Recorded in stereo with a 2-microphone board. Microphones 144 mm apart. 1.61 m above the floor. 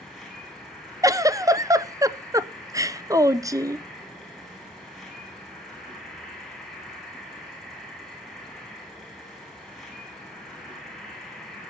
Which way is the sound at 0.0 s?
Centre (ahead or behind).